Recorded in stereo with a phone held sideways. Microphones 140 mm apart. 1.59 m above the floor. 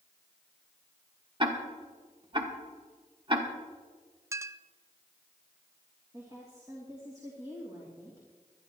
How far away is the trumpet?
I don't hear a trumpet.